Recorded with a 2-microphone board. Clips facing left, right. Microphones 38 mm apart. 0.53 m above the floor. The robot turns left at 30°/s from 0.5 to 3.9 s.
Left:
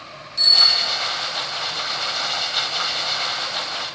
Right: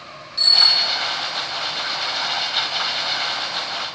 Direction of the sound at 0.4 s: 15° right (ahead or behind).